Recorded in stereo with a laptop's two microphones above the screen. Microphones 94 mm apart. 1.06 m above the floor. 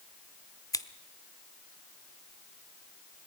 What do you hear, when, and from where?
0.7 s scissors: 35° left (ahead or behind), 1.0 m